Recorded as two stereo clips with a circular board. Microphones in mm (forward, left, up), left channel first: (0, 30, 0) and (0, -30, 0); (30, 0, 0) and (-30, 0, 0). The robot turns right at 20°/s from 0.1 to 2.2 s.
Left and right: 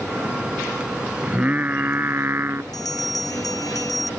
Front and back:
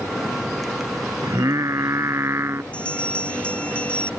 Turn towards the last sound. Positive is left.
turn(degrees=70)